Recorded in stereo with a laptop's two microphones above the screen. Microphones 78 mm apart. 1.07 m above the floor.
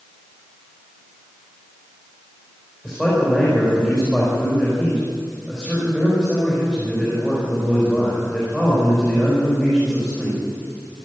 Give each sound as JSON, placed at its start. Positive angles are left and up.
{"t": 2.8, "sound": "a man speaking", "side_deg": -10, "distance_m": 4.5}